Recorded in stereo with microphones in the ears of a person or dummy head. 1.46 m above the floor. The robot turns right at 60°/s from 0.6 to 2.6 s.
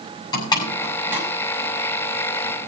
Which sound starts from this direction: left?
A door slam, at 0.3 s.